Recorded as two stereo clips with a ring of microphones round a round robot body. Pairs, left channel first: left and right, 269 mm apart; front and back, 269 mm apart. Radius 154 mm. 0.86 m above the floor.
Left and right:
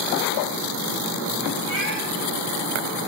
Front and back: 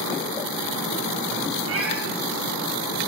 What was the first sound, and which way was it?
A cat meowing, 145° left.